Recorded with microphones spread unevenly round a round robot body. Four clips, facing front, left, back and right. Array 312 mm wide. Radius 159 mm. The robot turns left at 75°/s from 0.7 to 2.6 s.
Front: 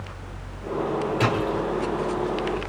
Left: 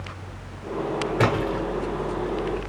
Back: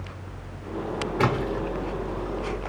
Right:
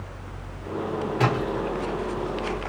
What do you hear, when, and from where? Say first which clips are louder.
1.2 s a splash: left 2 dB, back 1 dB; 120° left, 2.5 m; by 1.6 s 85° left, 2.5 m